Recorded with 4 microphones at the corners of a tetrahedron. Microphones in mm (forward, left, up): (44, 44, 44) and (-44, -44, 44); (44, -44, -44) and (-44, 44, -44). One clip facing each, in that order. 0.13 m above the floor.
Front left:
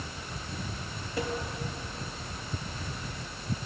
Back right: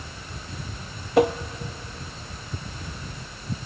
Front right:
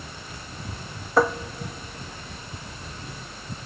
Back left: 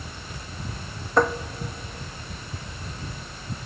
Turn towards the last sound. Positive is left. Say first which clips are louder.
# back right 14 dB, even
turn(degrees=-130)